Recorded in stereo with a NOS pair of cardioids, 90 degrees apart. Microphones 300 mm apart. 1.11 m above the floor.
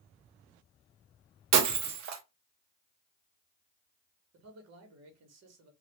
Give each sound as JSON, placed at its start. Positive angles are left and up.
{"t": 1.5, "sound": "breaking glass", "azimuth_deg": -65, "distance_m": 0.6}
{"t": 4.3, "sound": "a man speaking", "azimuth_deg": -65, "distance_m": 1.2}